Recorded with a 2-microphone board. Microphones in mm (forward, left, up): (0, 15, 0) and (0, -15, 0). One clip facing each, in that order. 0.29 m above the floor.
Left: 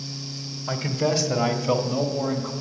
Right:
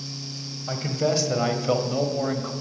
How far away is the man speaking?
About 1.5 m.